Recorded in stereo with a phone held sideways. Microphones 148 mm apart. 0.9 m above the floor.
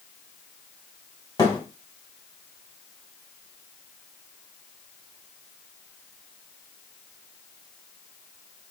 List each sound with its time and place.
1.4 s a thud: 25° left (ahead or behind), 2.5 m